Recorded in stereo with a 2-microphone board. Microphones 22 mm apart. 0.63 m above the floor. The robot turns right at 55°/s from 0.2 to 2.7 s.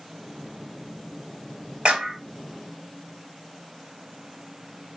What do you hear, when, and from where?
1.9 s a clap: 40° right (ahead or behind), 3 m; by 2.2 s 20° right (ahead or behind), 3 m